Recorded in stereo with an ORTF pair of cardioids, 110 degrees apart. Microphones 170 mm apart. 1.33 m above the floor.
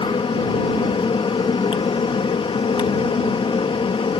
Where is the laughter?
I don't hear laughter.